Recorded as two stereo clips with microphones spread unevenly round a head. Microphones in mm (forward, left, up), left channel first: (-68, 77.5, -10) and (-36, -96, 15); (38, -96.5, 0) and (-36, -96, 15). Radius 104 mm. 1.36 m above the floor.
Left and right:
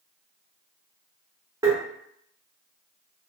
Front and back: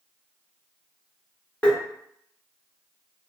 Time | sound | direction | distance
1.6 | tapping | 80° right | 1.0 m